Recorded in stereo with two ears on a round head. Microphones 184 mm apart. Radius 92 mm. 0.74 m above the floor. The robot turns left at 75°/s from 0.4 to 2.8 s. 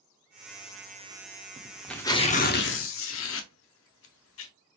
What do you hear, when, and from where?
1.6 s tearing paper: 20° right (ahead or behind), 0.6 m; by 4.5 s 70° left (ahead or behind), 0.6 m